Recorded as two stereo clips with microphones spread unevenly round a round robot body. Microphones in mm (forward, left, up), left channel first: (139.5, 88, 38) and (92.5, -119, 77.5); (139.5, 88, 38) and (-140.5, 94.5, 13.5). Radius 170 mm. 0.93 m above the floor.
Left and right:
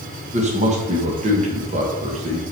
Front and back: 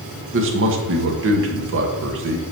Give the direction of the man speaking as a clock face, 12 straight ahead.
6 o'clock.